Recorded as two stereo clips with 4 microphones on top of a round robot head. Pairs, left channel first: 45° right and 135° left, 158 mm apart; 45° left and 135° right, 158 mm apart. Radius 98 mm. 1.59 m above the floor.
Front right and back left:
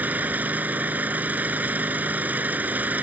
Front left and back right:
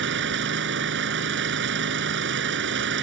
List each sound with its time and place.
0.0 s an engine running: 145° right